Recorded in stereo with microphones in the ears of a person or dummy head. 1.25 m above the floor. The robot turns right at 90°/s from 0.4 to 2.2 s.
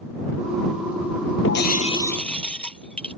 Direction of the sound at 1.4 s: 105° left.